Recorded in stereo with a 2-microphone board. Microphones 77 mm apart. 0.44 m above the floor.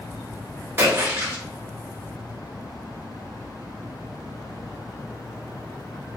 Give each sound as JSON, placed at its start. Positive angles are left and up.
{"t": 0.8, "sound": "a splash", "side_deg": -30, "distance_m": 1.2}